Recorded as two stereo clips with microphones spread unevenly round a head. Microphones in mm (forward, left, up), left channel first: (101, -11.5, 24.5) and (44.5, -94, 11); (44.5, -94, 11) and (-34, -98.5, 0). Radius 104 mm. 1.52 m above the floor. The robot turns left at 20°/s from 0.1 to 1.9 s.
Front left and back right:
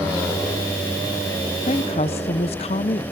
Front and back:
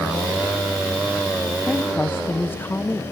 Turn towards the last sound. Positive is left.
turn(degrees=80)